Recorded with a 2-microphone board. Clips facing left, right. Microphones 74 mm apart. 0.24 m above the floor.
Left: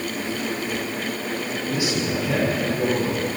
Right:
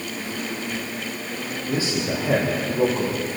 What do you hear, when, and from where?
1.7 s a man speaking: 35° right (ahead or behind), 9 m